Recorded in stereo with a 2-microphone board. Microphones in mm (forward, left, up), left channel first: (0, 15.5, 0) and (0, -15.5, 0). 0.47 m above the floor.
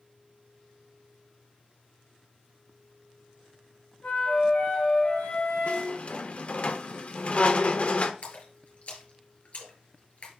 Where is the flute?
85° left, 3.5 m.